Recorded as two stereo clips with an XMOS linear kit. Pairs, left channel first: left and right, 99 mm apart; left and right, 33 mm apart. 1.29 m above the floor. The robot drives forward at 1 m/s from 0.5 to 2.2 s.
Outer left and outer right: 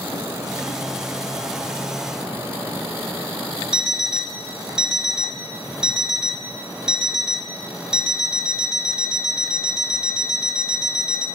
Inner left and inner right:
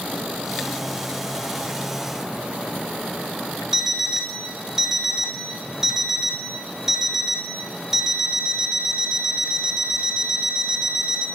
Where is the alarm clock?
5° right (ahead or behind), 2.5 m.